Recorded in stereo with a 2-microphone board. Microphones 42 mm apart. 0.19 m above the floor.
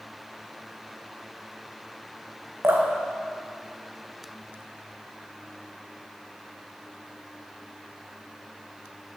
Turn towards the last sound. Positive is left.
turn(degrees=-75)  # may be behind; listen again after turning